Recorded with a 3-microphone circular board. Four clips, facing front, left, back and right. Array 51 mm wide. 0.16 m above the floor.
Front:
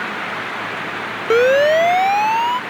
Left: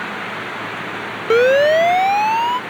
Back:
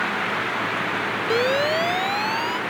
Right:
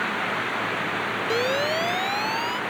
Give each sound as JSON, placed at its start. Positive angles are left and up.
{"t": 1.3, "sound": "a siren", "azimuth_deg": 50}